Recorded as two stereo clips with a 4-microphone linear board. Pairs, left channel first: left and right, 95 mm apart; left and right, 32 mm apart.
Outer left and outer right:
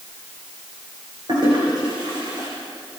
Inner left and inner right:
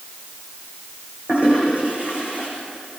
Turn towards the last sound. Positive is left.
turn(degrees=-50)  # may be behind; listen again after turning